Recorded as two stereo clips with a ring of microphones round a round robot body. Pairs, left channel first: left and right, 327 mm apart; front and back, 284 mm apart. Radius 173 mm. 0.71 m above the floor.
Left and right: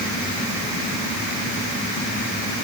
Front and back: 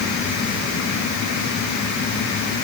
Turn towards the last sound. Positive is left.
No sound to turn to.